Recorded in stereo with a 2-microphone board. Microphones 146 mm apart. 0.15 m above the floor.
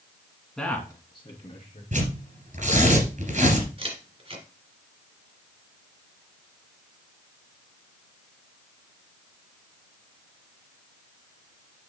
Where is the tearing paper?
60° right (ahead or behind), 2.5 m.